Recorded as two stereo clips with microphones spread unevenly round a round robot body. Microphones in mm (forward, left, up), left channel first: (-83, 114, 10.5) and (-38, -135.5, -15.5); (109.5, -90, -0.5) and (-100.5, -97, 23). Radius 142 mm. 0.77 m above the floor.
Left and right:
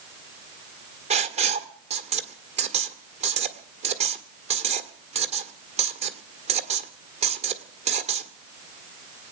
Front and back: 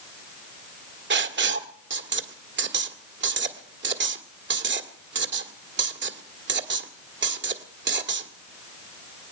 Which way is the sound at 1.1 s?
145° right.